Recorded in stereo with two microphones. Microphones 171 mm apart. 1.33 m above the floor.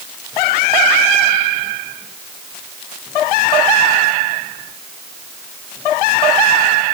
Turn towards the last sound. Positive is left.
No sound to turn to.